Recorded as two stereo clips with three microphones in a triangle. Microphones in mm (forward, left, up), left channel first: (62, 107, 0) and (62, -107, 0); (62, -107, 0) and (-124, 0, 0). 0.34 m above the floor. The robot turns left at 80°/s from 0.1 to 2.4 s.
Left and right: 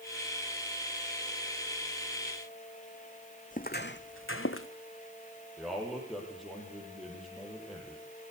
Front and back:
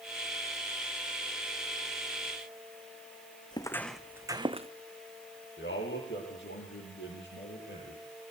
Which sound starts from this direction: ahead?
A man speaking, at 5.6 s.